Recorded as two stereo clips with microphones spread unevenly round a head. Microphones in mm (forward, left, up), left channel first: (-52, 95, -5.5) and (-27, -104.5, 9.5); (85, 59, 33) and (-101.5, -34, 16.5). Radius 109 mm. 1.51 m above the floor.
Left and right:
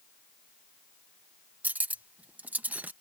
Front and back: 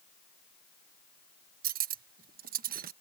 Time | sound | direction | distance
1.6 | cutlery clinking | 155° right | ?